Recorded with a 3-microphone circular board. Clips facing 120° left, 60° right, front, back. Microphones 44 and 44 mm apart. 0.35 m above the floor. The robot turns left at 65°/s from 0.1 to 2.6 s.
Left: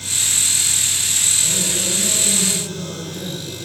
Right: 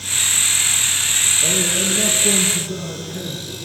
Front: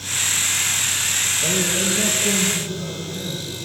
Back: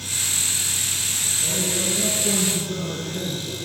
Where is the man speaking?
45° right, 4.5 m; by 3.6 s 120° right, 4.5 m.